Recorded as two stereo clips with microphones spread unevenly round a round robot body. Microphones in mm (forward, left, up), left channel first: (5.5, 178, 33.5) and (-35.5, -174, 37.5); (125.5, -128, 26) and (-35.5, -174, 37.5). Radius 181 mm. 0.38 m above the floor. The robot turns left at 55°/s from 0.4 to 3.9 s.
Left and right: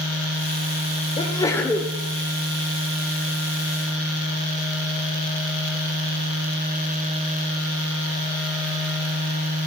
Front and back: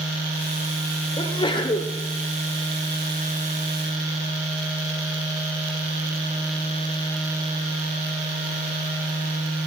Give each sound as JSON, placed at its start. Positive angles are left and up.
{"t": 1.2, "sound": "a sneeze", "azimuth_deg": 30, "distance_m": 1.0}